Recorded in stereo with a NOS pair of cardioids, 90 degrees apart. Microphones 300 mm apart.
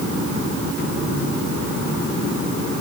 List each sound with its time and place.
Only background noise.